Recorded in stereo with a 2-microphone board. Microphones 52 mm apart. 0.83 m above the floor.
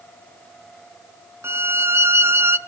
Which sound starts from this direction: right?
A violin, at 1.4 s.